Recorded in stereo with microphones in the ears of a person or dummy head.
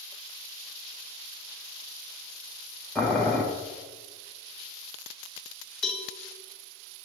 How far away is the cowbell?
About 1.0 m.